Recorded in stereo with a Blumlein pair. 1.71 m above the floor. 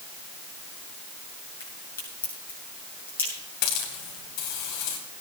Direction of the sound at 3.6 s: 45° left.